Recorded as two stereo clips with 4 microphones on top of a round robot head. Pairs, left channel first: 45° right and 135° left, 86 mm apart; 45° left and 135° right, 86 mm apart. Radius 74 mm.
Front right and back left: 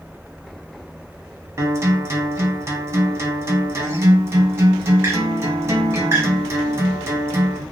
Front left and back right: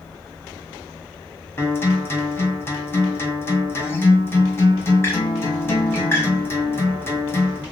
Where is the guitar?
90° left, 1.3 m.